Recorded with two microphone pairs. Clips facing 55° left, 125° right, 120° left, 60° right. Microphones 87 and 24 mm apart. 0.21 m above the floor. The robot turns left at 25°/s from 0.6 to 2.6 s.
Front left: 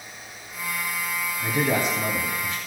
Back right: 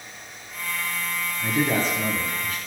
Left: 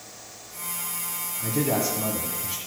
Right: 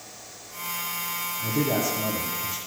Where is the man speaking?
130° left, 1.7 m; by 2.6 s 100° left, 1.7 m.